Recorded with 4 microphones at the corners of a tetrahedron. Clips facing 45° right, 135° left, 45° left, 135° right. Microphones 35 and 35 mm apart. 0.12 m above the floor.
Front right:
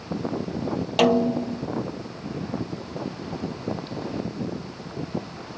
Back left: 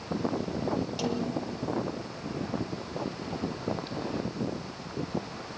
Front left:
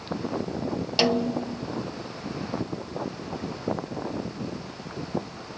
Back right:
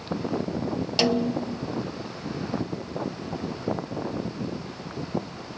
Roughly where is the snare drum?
Ahead right.